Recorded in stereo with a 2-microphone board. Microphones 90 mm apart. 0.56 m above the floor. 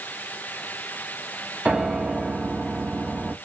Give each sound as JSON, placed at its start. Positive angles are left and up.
{"t": 1.6, "sound": "a piano", "side_deg": -10, "distance_m": 0.8}